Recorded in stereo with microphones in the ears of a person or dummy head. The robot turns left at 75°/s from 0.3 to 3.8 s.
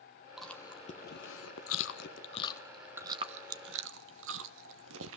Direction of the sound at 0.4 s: 5° right (ahead or behind).